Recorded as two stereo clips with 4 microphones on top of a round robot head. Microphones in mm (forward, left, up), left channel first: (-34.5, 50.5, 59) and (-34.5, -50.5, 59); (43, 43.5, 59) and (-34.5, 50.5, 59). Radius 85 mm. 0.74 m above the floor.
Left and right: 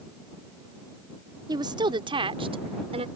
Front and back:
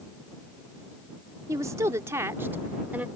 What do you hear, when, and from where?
1.5 s a woman speaking: 135° right; by 3.1 s 110° right